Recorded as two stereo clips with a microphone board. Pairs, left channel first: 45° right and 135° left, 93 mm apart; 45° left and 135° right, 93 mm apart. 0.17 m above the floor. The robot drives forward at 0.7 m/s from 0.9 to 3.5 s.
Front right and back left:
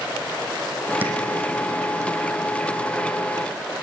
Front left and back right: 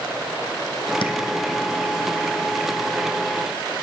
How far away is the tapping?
About 1.3 m.